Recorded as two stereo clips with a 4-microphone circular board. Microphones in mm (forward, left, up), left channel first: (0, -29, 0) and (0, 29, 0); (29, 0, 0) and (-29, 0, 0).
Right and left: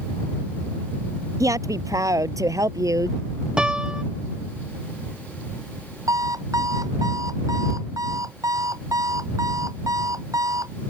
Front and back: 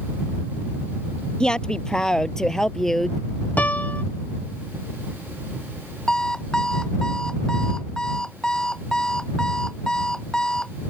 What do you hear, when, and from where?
1.4 s a woman speaking: 75° left; by 3.2 s 85° left
3.6 s a piano: 30° left
6.1 s an alarm clock: 75° left